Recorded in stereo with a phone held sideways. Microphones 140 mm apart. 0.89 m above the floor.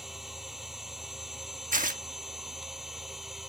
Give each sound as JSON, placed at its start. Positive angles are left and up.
{"t": 0.0, "sound": "a machine running", "side_deg": 0}
{"t": 1.7, "sound": "tearing paper", "side_deg": -70}